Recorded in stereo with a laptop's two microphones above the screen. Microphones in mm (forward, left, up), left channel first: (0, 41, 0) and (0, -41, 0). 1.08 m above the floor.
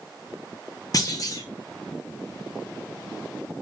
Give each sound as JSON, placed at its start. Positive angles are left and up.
{"t": 0.9, "sound": "a clunk", "side_deg": 45, "distance_m": 0.7}